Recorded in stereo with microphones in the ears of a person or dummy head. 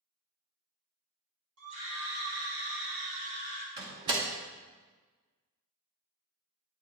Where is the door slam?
25° right (ahead or behind), 0.7 m.